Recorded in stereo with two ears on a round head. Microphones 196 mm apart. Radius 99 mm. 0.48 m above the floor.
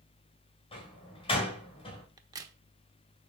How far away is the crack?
About 1.1 m.